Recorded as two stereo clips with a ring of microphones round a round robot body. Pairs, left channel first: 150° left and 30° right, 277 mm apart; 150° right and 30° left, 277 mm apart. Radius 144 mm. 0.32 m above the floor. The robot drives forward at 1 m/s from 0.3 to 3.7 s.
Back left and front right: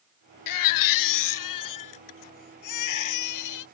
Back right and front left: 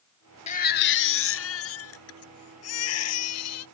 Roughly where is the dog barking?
I don't hear a dog barking.